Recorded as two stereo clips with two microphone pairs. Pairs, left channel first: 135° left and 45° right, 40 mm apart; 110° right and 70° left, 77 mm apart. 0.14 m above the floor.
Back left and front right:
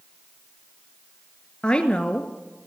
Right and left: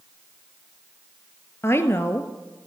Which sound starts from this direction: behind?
A woman speaking, at 1.6 s.